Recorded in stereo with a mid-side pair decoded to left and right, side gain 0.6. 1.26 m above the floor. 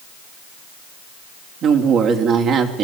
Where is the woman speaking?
55° right, 3 m.